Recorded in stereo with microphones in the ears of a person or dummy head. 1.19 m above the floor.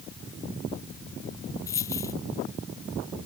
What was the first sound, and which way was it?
A dropped coin, 20° left (ahead or behind).